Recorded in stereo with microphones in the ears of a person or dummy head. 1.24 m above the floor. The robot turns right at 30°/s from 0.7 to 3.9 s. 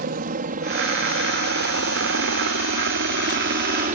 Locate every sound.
0.0 s a helicopter: 45° right (ahead or behind)